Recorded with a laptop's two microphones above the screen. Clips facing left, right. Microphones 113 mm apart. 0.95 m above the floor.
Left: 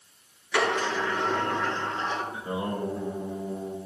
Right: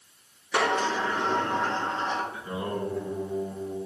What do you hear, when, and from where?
0.5 s a sliding door: 30° right (ahead or behind), 6 m
2.3 s singing: 20° left (ahead or behind), 4.5 m